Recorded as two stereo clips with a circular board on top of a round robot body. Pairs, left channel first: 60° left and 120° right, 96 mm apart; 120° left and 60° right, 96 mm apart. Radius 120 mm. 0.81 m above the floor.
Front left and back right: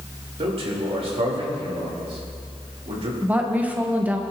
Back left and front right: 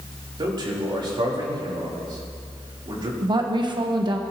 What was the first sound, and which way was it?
A man speaking, 100° right.